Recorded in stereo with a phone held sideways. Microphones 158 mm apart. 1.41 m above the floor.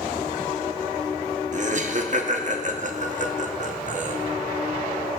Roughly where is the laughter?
Right.